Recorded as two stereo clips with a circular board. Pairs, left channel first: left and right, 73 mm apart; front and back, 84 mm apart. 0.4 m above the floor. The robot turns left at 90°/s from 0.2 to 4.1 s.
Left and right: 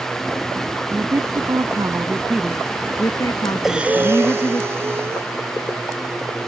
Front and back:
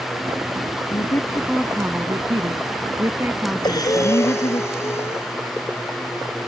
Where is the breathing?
5° right; by 5.3 s 50° right.